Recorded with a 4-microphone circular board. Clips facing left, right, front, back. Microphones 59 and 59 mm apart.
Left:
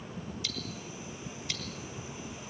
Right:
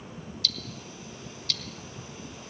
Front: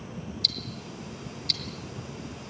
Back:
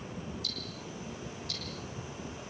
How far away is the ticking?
About 3 m.